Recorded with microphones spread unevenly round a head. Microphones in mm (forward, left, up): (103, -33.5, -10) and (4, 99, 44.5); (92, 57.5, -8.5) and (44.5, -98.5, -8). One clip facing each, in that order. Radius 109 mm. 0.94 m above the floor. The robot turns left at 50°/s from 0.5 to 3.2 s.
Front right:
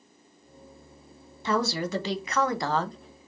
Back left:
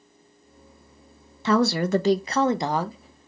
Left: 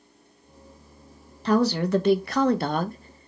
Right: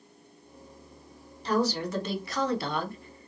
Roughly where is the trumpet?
I don't hear a trumpet.